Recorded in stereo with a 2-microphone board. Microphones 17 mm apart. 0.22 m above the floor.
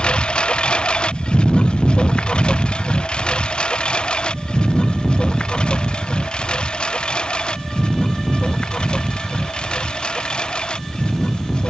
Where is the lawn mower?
70° left (ahead or behind); by 11.7 s 55° left (ahead or behind).